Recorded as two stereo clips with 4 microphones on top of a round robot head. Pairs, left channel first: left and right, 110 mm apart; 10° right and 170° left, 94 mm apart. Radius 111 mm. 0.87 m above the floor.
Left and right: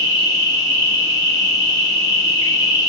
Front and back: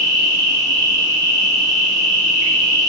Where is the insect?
135° left, 1.6 m.